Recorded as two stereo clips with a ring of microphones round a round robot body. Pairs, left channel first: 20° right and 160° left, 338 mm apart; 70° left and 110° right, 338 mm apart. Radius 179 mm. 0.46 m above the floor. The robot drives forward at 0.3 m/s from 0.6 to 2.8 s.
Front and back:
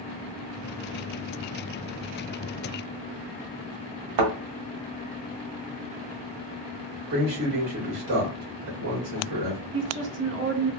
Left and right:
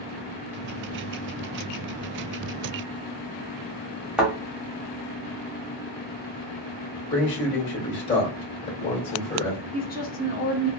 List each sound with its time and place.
4.2 s a thud: 160° left, 1.1 m
7.1 s a man speaking: 140° left, 2 m
9.7 s a woman speaking: 120° left, 1.1 m